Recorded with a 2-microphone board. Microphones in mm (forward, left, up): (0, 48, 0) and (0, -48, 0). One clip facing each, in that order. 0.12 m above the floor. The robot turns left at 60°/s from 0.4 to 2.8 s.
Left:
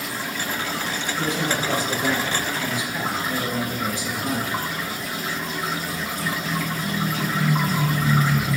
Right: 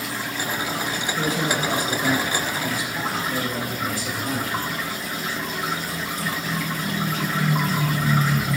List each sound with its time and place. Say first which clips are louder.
1.2 s a man speaking: right 1 dB; 110° right, 2 m; by 4.7 s 150° left, 2 m